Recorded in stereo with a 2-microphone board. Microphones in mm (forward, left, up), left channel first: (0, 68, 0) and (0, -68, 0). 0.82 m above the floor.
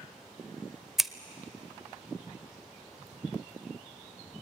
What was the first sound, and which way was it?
Scissors, centre (ahead or behind).